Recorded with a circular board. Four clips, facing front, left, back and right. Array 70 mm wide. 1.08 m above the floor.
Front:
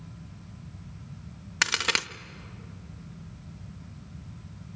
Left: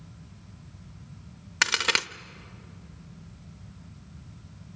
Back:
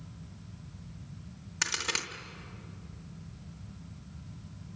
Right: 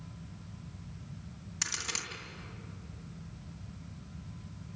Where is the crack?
55° left, 0.8 m.